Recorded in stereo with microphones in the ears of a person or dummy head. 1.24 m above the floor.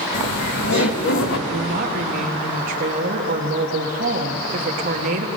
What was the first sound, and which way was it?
Laughter, 55° left (ahead or behind).